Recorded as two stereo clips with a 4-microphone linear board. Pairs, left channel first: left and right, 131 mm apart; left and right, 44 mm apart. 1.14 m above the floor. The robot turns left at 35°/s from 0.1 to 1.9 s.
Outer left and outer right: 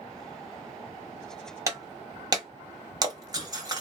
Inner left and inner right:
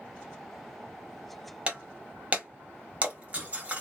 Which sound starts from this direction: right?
Breaking glass, at 1.7 s.